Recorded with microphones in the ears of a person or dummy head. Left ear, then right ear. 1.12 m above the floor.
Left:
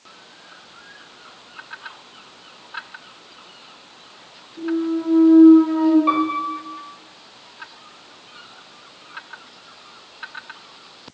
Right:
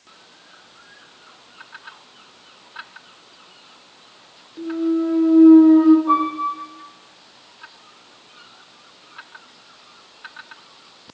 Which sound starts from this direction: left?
A piano, at 6.1 s.